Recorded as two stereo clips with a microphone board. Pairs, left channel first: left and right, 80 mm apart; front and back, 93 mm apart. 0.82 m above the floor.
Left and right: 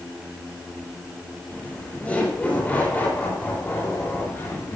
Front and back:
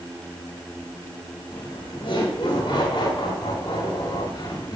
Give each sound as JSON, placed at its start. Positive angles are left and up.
{"t": 1.5, "sound": "laughter", "azimuth_deg": 15, "distance_m": 5.5}